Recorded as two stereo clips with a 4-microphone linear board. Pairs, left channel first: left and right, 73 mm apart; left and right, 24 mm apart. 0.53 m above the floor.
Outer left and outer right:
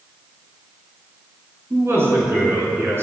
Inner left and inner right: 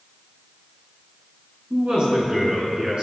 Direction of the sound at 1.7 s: 35° right (ahead or behind).